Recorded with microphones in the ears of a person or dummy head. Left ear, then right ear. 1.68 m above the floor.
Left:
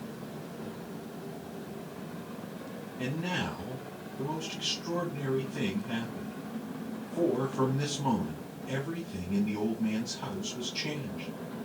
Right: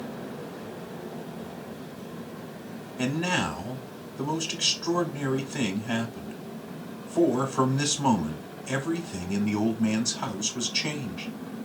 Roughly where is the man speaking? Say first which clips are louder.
Right 7 dB; right.